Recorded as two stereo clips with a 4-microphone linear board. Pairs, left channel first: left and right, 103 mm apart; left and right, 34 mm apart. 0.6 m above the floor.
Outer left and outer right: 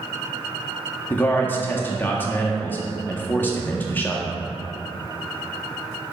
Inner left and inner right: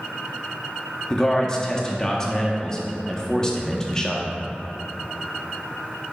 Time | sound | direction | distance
1.1 | a man speaking | 20° left (ahead or behind) | 0.6 m